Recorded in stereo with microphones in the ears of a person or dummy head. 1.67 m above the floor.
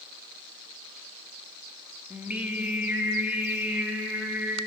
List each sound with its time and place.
2.1 s singing: 5° right (ahead or behind), 2.5 m